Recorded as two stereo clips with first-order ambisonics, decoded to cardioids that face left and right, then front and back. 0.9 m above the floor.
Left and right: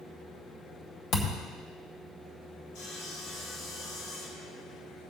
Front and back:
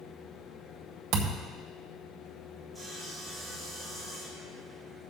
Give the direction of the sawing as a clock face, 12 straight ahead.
9 o'clock.